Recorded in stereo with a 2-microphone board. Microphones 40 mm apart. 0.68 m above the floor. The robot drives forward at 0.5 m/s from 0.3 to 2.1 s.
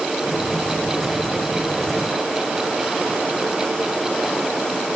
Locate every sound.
Only background noise.